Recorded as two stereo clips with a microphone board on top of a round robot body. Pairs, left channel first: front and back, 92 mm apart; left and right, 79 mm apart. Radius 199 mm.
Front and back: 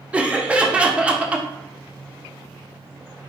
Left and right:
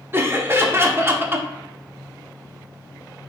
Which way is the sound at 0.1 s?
115° right.